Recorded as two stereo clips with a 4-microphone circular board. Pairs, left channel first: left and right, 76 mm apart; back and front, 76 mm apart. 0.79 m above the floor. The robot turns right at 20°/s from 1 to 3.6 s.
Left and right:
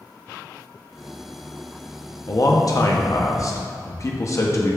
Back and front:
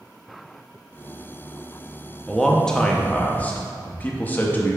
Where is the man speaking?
95° left, 0.7 m; by 4.8 s 120° left, 0.7 m.